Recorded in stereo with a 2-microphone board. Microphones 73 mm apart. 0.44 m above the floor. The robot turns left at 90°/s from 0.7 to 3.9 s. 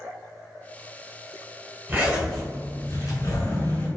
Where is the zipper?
145° right, 1.1 m; by 3.9 s 35° left, 1.1 m.